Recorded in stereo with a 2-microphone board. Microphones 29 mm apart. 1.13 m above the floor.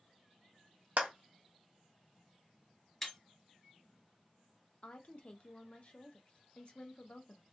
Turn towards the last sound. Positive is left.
turn(degrees=45)  # may be behind; listen again after turning